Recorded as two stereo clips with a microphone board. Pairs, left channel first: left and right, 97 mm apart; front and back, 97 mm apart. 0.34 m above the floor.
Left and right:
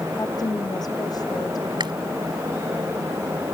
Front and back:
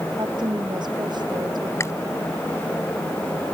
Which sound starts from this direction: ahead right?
Chewing, at 1.8 s.